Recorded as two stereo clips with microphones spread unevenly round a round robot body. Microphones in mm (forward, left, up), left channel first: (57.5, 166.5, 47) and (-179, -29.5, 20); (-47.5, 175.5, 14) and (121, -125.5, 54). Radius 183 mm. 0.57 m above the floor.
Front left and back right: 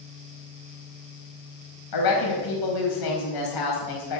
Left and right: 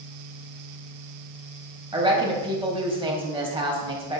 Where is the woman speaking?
15° left, 4 m.